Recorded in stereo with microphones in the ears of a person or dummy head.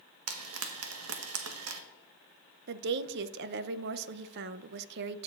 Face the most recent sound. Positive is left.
turn(degrees=-60)  # may be behind; listen again after turning